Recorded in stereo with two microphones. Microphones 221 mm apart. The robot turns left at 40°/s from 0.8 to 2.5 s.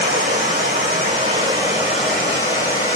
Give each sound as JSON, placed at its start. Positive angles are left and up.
{"t": 0.0, "sound": "running water", "azimuth_deg": -130, "distance_m": 1.9}